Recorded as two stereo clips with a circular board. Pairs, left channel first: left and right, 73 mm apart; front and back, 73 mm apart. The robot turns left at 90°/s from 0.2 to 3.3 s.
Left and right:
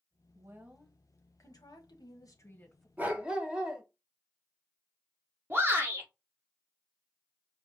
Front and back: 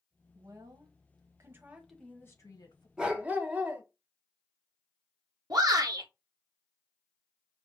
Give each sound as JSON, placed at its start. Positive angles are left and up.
{"t": 0.3, "sound": "a woman speaking", "azimuth_deg": -130, "distance_m": 1.1}
{"t": 3.0, "sound": "a dog barking", "azimuth_deg": -120, "distance_m": 1.0}
{"t": 5.5, "sound": "a shout", "azimuth_deg": -150, "distance_m": 1.7}